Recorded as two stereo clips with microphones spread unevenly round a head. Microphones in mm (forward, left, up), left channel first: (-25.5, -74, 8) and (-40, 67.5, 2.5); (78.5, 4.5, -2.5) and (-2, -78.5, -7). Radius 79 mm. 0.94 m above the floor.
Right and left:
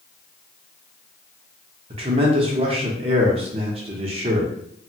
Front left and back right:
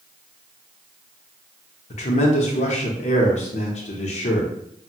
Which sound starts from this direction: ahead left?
A man speaking, at 1.9 s.